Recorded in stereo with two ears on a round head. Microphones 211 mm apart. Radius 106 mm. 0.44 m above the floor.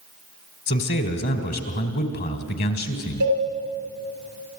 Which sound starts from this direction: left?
A man speaking, at 0.7 s.